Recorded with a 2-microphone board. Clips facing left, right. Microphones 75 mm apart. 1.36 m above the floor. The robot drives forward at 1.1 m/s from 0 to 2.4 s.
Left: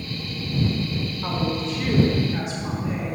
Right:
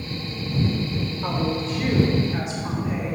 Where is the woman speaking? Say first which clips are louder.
Right 1 dB; centre (ahead or behind), 1.5 m.